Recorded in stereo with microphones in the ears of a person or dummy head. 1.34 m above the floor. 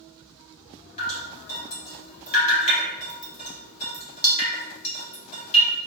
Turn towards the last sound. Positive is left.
turn(degrees=45)  # may be behind; listen again after turning